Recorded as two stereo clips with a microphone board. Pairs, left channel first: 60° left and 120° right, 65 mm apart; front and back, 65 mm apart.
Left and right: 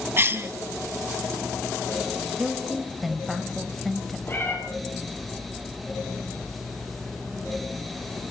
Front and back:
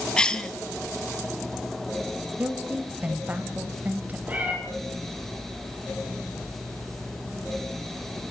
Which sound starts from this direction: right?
A cough, at 0.2 s.